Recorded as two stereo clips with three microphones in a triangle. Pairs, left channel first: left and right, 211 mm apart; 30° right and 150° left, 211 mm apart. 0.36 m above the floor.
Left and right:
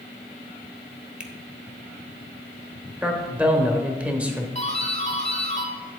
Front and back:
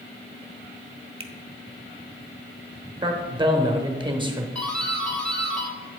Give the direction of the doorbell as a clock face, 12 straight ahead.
10 o'clock.